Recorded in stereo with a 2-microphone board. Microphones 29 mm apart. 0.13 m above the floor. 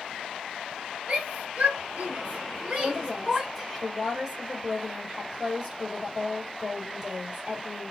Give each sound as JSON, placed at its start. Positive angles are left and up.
{"t": 1.1, "sound": "a shout", "side_deg": -50, "distance_m": 2.0}
{"t": 2.8, "sound": "a woman speaking", "side_deg": -15, "distance_m": 2.5}